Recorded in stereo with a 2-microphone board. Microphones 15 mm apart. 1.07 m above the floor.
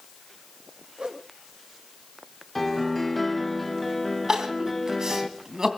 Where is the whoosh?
60° right (ahead or behind), 1.7 m.